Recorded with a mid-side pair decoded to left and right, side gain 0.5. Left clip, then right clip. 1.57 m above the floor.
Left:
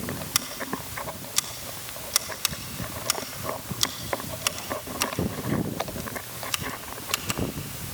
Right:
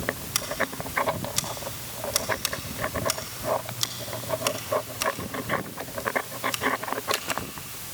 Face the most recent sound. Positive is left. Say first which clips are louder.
# even
turn(degrees=20)